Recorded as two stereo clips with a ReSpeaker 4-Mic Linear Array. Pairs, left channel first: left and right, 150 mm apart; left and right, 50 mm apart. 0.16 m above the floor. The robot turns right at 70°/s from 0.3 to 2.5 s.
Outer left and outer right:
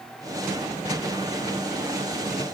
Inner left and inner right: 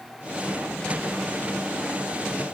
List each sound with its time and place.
Only background noise.